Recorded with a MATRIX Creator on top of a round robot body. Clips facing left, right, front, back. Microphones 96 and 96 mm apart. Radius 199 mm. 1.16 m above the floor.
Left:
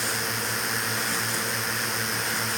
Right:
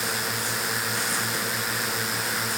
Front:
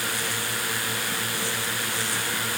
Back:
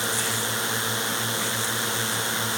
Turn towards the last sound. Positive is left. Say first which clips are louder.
# even, back 2 dB
turn(degrees=-175)